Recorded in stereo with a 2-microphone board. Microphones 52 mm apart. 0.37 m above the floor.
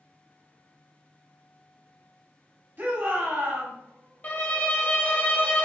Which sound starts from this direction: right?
A shout, at 2.8 s.